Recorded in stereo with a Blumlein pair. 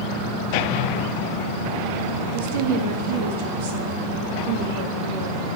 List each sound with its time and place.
2.3 s a woman speaking: 50° right, 1.4 m